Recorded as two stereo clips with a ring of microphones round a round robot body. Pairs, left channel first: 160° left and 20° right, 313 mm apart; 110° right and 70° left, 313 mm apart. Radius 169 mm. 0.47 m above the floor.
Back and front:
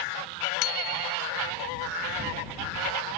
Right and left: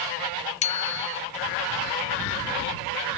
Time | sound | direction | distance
0.6 | a bicycle bell | straight behind | ?